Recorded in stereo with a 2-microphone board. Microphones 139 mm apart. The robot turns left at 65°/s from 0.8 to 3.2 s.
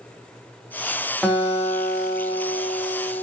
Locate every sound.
1.2 s a guitar: 175° left, 3.5 m; by 3.2 s 45° left, 3.5 m